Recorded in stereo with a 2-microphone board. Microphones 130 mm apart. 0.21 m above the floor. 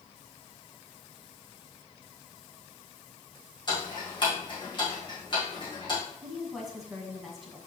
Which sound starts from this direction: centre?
A woman speaking, at 6.2 s.